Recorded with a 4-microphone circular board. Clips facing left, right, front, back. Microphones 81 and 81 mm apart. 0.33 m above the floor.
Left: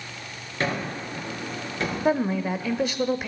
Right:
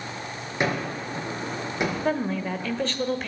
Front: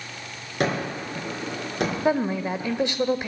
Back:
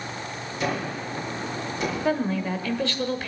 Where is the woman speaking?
30° left, 1.0 m.